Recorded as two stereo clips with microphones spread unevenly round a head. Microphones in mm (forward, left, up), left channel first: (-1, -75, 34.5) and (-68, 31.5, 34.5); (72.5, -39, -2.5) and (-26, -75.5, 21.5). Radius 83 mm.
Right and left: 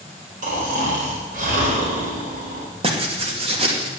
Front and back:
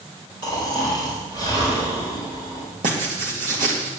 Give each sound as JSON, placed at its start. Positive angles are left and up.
{"t": 0.4, "sound": "snoring", "azimuth_deg": 140, "distance_m": 4.5}
{"t": 2.8, "sound": "writing", "azimuth_deg": 165, "distance_m": 2.5}